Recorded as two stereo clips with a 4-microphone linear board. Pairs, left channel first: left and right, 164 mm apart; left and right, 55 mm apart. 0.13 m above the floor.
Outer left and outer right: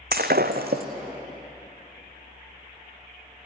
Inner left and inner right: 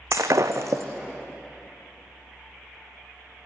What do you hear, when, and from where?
0.1 s breaking glass: 70° right (ahead or behind), 1.8 m